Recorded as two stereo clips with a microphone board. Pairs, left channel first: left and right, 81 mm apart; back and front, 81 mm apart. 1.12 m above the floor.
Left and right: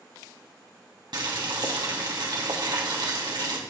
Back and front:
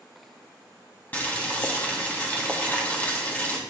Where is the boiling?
110° right, 1.9 m.